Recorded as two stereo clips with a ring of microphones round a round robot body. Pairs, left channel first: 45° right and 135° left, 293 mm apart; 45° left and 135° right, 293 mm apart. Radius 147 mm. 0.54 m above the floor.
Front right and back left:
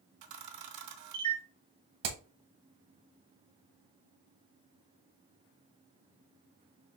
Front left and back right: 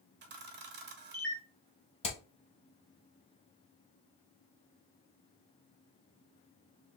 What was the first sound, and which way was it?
A camera shutter, 170° left.